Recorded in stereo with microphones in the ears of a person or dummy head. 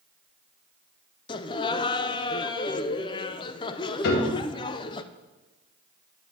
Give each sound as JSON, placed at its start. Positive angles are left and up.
{"t": 1.3, "sound": "laughter", "side_deg": 25, "distance_m": 0.6}
{"t": 4.0, "sound": "a piano", "side_deg": 55, "distance_m": 1.9}